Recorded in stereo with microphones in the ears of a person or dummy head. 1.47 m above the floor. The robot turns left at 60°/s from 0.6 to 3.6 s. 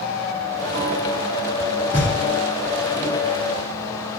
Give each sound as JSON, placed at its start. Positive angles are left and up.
{"t": 1.9, "sound": "knocking", "side_deg": 15, "distance_m": 1.9}